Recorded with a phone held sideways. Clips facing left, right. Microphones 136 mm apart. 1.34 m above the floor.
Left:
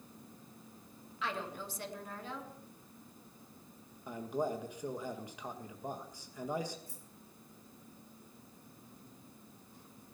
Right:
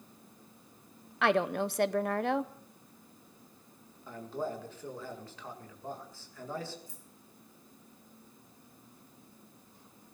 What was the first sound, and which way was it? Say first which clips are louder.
A woman speaking: right 12 dB; 65° right (ahead or behind).